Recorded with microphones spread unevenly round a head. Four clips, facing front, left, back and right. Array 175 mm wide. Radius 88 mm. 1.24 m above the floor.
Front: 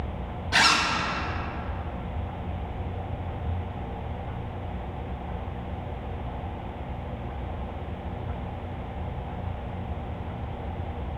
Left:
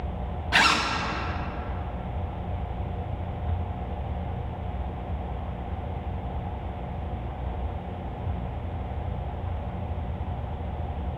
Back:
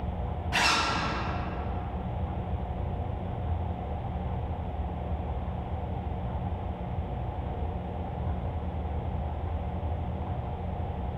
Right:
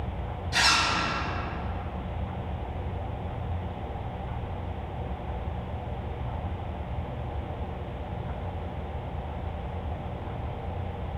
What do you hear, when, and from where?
0.5 s a zipper: 55° left, 0.8 m